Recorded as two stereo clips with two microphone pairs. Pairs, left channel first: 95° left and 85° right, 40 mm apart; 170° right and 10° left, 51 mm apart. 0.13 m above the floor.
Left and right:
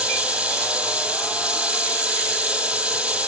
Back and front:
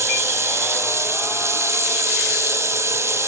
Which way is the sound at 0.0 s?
25° right.